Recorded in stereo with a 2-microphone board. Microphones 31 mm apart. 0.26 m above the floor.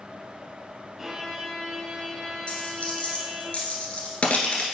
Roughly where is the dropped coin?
Left.